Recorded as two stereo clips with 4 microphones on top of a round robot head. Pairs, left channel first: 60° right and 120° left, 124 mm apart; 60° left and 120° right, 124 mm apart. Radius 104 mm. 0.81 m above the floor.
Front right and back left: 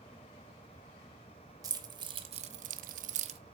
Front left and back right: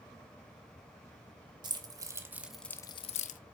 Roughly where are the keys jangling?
Behind.